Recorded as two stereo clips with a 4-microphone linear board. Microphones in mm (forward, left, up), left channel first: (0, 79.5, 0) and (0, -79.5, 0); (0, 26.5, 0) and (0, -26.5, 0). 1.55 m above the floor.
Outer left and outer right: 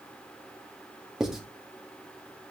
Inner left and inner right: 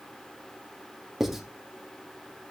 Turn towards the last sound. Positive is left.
turn(degrees=-5)  # may be behind; listen again after turning